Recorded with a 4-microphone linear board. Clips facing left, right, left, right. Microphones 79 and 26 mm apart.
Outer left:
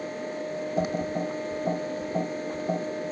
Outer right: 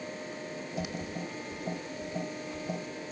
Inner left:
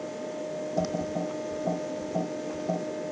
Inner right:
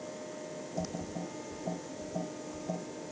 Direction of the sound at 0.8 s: 40° left (ahead or behind).